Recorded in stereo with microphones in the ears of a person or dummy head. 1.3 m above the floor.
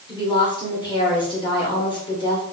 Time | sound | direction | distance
0.1 | a woman speaking | 25° left (ahead or behind) | 1.2 m